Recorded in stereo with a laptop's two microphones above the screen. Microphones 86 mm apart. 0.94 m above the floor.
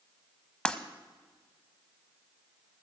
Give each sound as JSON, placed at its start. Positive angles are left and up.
{"t": 0.7, "sound": "breaking glass", "side_deg": 10, "distance_m": 1.0}